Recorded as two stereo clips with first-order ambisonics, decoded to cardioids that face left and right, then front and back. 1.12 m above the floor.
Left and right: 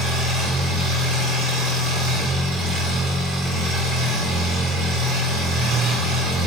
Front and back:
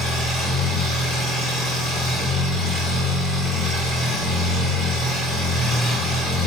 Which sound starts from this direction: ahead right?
An engine running, at 0.0 s.